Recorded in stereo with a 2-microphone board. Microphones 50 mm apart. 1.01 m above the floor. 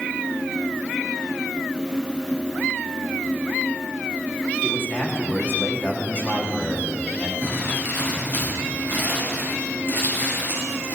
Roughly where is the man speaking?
Left.